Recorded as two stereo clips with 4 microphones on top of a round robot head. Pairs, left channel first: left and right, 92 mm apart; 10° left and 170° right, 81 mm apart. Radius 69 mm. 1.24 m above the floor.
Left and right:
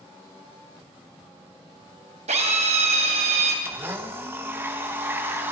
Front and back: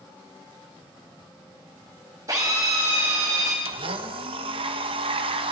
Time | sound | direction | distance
2.3 | a drill | 105° right | 3.5 m
3.6 | a blender | 160° right | 1.5 m